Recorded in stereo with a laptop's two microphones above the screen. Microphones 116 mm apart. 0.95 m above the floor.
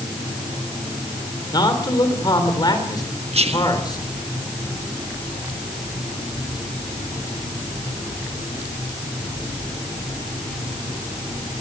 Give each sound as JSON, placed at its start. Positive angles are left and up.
{"t": 1.5, "sound": "a man speaking", "side_deg": 35, "distance_m": 3.5}
{"t": 3.3, "sound": "whispering", "side_deg": -60, "distance_m": 1.2}